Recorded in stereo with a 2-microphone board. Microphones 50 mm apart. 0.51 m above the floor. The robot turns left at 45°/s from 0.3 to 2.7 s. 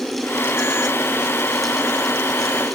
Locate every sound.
Only background noise.